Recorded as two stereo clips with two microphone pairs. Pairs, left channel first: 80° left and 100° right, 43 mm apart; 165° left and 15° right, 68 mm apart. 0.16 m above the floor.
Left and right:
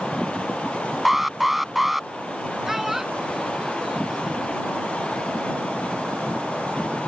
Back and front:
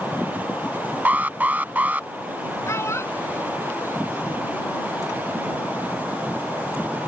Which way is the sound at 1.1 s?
15° right.